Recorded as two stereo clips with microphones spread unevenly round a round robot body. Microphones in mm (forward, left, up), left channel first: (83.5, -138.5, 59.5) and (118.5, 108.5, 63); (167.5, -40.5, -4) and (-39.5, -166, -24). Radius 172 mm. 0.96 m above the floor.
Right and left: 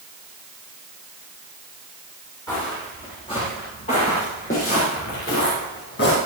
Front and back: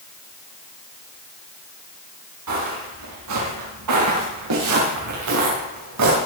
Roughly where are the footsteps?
Behind.